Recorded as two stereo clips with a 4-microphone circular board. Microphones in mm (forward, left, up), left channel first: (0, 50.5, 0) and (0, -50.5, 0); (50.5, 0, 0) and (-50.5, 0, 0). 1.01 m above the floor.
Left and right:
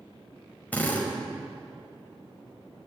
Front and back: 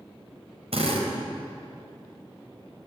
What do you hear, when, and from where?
0.7 s a drill: 165° left, 5.5 m